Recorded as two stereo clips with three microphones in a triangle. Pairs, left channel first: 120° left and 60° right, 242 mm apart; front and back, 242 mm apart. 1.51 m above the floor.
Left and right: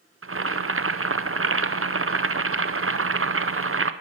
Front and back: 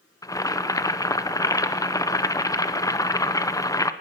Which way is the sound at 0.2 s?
75° right.